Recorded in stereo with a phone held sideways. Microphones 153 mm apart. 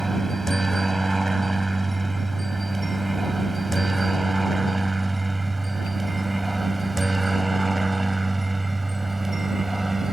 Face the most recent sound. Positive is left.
turn(degrees=0)  # may be behind; listen again after turning